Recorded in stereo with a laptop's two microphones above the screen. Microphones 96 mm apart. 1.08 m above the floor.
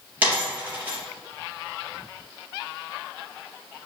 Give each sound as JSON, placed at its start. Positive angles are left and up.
{"t": 0.2, "sound": "a dropped coin", "side_deg": -15, "distance_m": 2.5}